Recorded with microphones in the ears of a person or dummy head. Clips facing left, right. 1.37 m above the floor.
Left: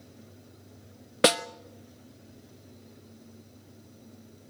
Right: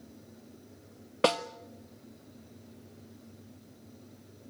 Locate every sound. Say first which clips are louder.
1.2 s a snare drum: left 3 dB; 20° left (ahead or behind), 0.6 m